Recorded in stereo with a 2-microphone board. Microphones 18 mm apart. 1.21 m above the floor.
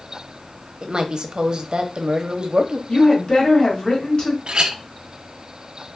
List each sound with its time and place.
0.8 s a woman speaking: 55° right (ahead or behind), 0.6 m
2.9 s a woman speaking: 45° left (ahead or behind), 1.9 m
4.5 s a clink: 50° right (ahead or behind), 0.7 m